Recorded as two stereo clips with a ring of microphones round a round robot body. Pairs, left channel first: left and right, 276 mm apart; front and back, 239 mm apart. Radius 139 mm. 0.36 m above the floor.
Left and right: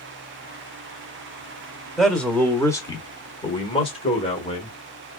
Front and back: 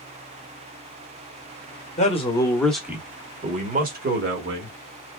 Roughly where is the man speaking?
Ahead.